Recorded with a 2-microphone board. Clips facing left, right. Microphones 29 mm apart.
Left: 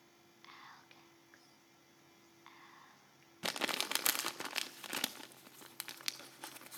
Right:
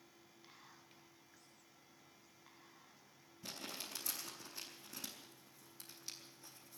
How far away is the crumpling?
About 0.7 m.